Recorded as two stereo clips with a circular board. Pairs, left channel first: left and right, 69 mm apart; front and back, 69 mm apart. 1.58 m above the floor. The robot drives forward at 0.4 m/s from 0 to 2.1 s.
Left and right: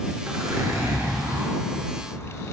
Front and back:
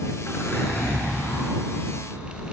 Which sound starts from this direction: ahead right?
A zipper, at 0.3 s.